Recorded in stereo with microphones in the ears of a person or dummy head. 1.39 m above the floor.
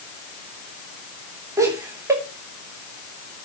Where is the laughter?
10° right (ahead or behind), 3 m.